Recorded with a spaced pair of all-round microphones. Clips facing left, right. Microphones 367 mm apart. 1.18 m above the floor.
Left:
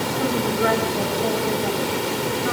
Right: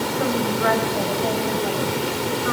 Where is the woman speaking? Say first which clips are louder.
Left 1 dB; 45° left (ahead or behind), 5.5 m.